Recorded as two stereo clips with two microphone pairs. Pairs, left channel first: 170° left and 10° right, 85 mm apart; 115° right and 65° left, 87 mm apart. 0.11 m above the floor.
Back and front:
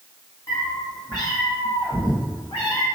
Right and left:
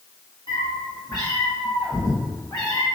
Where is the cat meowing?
140° right, 1.8 m; by 2.9 s 175° right, 2.5 m.